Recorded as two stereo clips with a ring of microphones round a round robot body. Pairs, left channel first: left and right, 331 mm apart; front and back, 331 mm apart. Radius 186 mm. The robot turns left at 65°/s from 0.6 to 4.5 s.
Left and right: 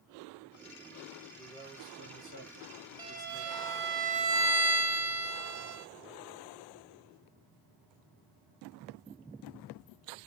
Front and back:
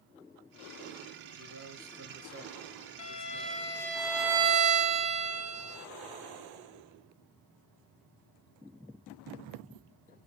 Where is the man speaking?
175° right, 2 m; by 3.7 s 30° left, 2 m.